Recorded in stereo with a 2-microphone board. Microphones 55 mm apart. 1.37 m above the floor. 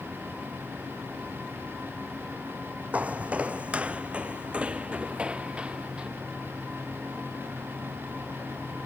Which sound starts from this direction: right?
Footsteps, at 2.9 s.